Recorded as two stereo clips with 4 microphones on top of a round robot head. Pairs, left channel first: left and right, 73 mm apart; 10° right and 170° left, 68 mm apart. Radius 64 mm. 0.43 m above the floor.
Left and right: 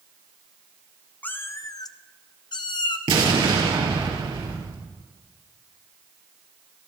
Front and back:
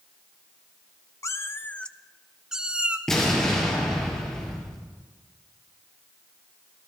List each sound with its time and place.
1.2 s a cat meowing: 25° left, 0.7 m; by 3.0 s 100° left, 1.3 m
3.1 s an explosion: 95° right, 4 m